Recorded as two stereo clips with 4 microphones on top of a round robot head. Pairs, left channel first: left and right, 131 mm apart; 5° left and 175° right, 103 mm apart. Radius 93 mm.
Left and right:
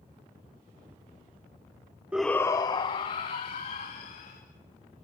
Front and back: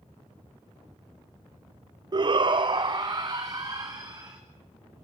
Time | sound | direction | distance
2.1 | a shout | 165° right | 0.6 m